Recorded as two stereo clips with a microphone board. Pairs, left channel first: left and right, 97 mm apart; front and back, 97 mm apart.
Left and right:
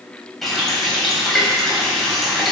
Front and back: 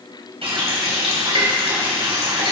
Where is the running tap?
Straight behind, 3.5 m.